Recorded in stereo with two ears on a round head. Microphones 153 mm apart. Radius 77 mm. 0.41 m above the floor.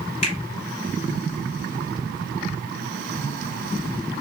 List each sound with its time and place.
0.2 s a finger snap: 40° left (ahead or behind), 1.5 m